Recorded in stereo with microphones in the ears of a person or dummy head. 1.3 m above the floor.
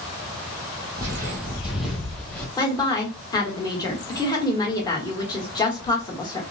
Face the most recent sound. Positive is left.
turn(degrees=20)  # may be behind; listen again after turning